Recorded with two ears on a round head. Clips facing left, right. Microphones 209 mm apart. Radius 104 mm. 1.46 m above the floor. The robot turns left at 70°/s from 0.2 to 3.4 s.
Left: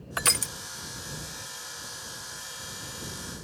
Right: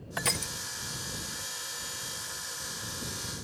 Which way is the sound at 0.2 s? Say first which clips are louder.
Even; 5° left (ahead or behind).